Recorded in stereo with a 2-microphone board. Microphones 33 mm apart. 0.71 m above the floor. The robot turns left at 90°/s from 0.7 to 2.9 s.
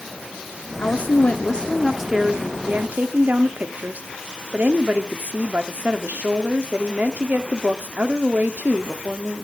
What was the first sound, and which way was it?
A woman speaking, 100° left.